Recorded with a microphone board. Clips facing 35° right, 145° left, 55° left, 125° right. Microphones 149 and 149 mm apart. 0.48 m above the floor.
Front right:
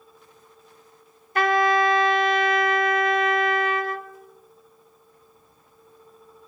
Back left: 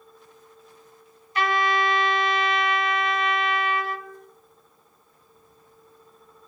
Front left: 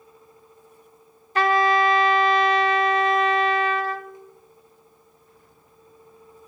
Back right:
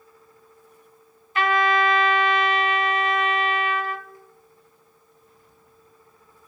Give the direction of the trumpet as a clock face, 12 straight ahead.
12 o'clock.